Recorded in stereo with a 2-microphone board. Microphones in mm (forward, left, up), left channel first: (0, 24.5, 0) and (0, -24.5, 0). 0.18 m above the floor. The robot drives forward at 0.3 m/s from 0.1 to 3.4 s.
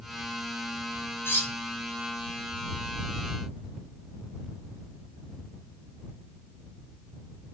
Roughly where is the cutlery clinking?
Left.